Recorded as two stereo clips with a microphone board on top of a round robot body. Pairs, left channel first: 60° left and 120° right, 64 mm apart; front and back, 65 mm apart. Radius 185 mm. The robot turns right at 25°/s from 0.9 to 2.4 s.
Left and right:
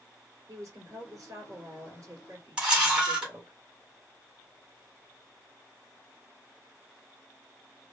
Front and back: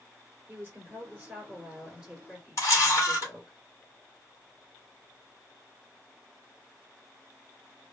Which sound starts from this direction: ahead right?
A camera shutter, at 2.6 s.